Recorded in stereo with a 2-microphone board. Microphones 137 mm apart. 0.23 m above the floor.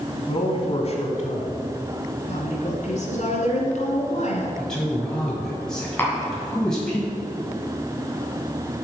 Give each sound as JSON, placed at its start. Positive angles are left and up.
{"t": 0.3, "sound": "a man speaking", "side_deg": 40, "distance_m": 1.5}
{"t": 2.3, "sound": "a woman speaking", "side_deg": 60, "distance_m": 1.9}
{"t": 4.6, "sound": "a man speaking", "side_deg": 5, "distance_m": 1.7}
{"t": 6.0, "sound": "tapping", "side_deg": 15, "distance_m": 1.7}